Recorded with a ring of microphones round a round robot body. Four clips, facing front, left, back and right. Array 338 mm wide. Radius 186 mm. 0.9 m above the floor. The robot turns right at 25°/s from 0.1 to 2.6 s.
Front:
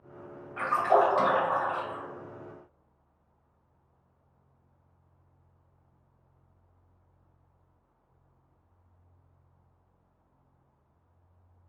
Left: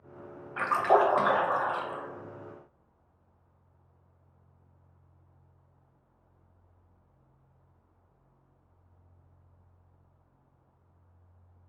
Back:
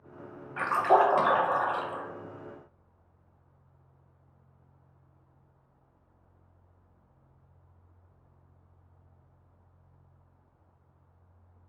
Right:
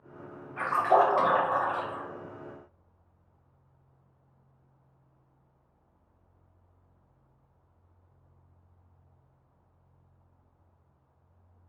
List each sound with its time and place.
0.6 s a splash: 115° left, 0.8 m; by 2.0 s 155° left, 0.8 m